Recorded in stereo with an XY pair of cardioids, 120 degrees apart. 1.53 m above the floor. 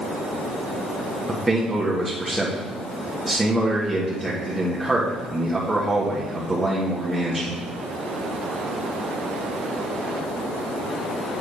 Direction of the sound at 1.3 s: 15° right.